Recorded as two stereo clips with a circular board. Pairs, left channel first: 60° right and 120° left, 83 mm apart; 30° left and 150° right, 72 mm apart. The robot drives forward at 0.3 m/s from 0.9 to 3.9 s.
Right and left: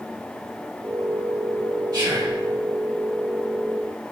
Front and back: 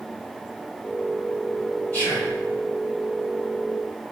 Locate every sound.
1.9 s whispering: 90° left, 2.5 m